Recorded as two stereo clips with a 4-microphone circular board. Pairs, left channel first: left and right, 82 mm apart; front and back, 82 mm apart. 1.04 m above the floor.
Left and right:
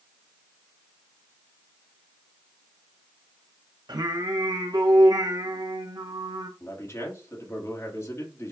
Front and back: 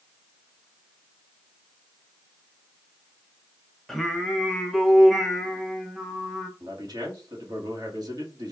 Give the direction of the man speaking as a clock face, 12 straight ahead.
7 o'clock.